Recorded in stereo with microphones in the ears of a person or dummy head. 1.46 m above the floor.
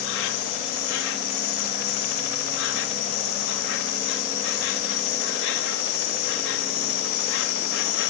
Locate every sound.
0.0 s an insect: 70° left (ahead or behind)